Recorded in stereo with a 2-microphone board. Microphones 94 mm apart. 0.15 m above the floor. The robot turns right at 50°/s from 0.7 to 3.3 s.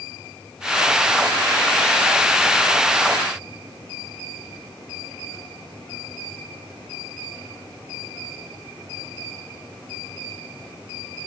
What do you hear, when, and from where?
Only background noise.